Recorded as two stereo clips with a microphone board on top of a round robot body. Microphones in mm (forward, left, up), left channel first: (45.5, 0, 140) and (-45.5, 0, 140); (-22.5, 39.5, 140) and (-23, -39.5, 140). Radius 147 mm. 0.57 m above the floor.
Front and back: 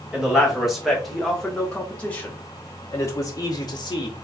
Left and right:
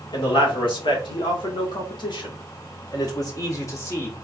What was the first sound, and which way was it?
A man speaking, 95° left.